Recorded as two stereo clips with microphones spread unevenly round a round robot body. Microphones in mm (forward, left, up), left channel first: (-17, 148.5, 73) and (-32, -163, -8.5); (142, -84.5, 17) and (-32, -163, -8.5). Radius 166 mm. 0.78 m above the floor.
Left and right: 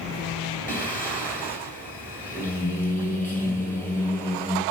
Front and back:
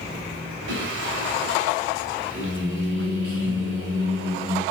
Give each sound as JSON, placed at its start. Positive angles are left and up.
{"t": 0.7, "sound": "singing", "azimuth_deg": 175, "distance_m": 3.0}